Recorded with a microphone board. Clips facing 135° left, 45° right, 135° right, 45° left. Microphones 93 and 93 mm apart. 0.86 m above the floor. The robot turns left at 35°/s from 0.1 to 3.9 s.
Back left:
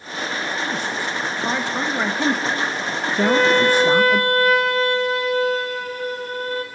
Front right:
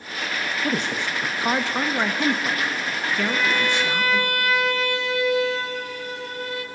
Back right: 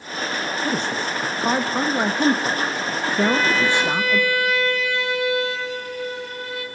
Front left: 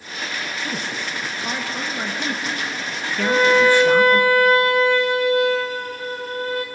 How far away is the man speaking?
About 1.1 m.